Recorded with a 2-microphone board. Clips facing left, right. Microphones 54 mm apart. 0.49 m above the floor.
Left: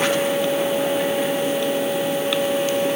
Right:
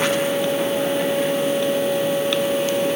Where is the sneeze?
No sneeze in this recording.